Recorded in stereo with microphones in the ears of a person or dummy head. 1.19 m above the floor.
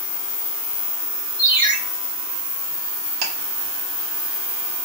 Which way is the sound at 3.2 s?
50° right (ahead or behind).